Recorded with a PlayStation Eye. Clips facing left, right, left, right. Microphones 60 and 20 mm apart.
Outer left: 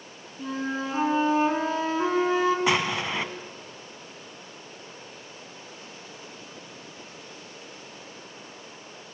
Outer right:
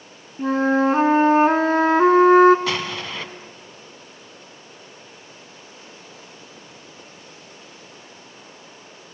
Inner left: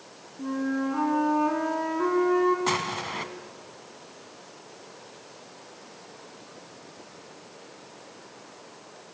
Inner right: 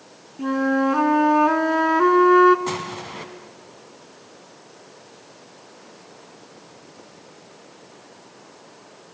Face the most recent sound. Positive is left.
turn(degrees=20)  # may be behind; listen again after turning